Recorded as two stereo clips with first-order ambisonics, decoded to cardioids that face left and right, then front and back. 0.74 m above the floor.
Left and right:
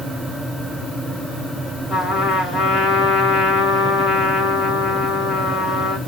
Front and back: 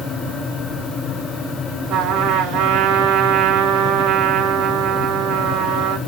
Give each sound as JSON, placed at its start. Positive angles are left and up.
{"t": 1.9, "sound": "a trumpet", "azimuth_deg": 165, "distance_m": 2.0}